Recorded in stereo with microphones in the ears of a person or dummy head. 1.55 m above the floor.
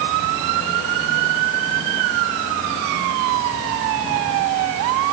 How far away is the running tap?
No running tap in this recording.